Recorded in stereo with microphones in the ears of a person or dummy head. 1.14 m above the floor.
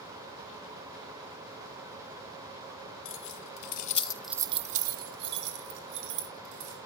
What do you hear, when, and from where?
3.0 s keys jangling: 75° left (ahead or behind), 1.8 m; by 6.8 s 75° right (ahead or behind), 4 m